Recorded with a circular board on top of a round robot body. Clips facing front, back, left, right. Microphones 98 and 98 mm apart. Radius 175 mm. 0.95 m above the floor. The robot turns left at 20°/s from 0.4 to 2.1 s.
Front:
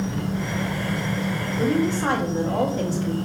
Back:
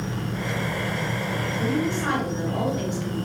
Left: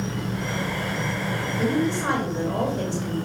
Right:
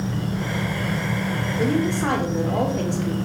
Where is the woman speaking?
45° right, 3 m; by 3.1 s 55° right, 3 m.